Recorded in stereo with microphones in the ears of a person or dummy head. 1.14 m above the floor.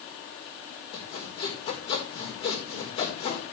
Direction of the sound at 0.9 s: 35° left (ahead or behind).